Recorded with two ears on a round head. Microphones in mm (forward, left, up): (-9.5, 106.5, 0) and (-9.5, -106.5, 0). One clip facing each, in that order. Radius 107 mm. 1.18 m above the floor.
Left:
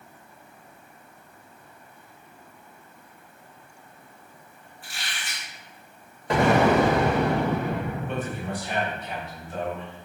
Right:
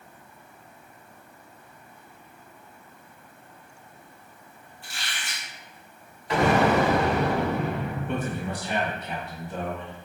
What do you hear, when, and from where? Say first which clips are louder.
4.8 s a squeak: even; centre (ahead or behind), 1.1 m
6.3 s an explosion: left 2 dB; 40° left (ahead or behind), 1.0 m
8.1 s a man speaking: right 1 dB; 85° right, 1.5 m